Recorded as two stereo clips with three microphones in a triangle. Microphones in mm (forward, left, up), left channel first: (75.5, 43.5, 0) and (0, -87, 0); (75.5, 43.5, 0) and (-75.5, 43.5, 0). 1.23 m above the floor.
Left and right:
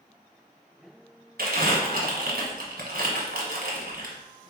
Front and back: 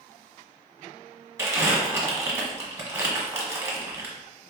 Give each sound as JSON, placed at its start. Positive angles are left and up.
{"t": 1.4, "sound": "crumpling", "azimuth_deg": -110, "distance_m": 1.0}